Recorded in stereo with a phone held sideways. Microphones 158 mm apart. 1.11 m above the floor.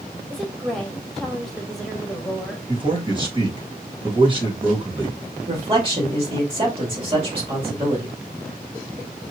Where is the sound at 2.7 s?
30° right (ahead or behind), 2 m.